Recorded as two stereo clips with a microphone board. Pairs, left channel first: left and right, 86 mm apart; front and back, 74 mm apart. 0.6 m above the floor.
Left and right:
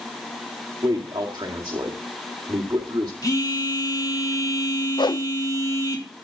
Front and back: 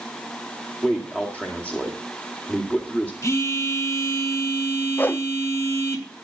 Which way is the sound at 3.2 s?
45° left.